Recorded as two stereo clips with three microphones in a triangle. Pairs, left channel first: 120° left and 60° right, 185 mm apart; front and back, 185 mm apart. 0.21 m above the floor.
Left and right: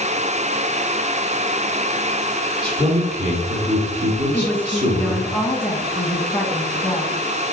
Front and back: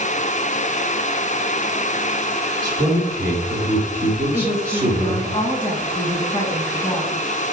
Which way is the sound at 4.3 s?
45° left.